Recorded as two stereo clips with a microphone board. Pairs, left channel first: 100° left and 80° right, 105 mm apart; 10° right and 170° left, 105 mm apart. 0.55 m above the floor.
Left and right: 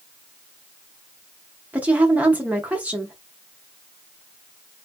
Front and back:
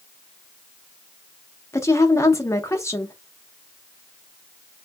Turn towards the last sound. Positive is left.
turn(degrees=-30)